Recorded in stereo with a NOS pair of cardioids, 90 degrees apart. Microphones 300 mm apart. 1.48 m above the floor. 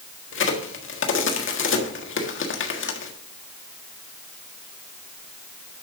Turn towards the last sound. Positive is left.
turn(degrees=40)